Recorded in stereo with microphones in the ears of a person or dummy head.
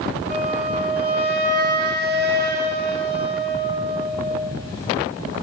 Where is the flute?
60° right (ahead or behind), 5 m.